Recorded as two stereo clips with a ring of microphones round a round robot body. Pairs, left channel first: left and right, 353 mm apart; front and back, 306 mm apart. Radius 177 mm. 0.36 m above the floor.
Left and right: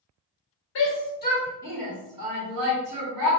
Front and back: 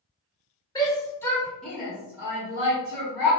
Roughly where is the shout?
Left.